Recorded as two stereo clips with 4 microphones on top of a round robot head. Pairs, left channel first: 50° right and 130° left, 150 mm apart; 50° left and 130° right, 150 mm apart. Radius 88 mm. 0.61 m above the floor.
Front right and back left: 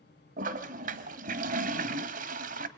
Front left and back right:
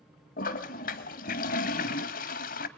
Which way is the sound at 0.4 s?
90° left.